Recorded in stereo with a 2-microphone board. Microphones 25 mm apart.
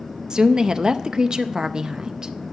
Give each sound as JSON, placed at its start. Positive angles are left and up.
{"t": 0.3, "sound": "a woman speaking", "side_deg": -30, "distance_m": 0.5}